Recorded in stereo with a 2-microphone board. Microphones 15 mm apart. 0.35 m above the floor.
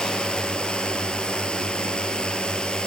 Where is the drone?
75° left (ahead or behind); by 2.9 s 70° left (ahead or behind).